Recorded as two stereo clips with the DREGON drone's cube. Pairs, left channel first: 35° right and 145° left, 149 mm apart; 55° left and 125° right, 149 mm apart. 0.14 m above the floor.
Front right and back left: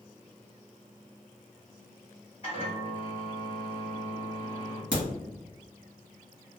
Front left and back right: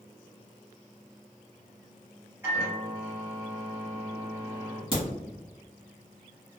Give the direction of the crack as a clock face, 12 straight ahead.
5 o'clock.